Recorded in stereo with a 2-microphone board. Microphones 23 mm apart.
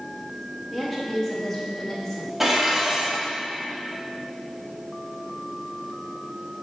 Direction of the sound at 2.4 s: 10° right (ahead or behind).